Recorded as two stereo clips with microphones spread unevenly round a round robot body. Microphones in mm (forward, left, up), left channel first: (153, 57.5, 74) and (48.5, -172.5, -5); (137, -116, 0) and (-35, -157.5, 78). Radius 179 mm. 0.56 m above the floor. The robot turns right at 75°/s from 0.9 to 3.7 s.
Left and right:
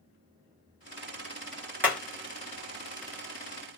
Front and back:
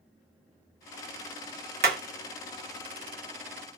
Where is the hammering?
155° right, 0.8 m; by 2.0 s 145° right, 0.8 m.